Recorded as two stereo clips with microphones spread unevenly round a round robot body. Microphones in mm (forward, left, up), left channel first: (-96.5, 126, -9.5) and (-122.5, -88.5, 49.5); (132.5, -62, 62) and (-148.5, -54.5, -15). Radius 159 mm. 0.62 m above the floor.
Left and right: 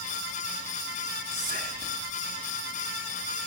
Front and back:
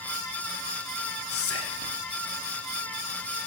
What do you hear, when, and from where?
1.3 s whispering: 35° right, 0.7 m